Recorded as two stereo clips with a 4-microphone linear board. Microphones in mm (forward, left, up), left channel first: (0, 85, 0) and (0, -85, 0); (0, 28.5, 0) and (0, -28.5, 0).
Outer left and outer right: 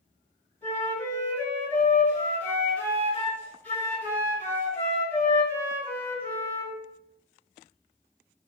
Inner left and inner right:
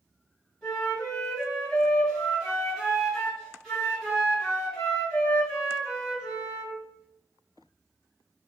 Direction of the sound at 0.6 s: 10° left (ahead or behind).